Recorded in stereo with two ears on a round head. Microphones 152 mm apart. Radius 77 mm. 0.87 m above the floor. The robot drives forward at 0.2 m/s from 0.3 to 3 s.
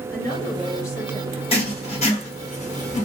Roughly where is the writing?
Left.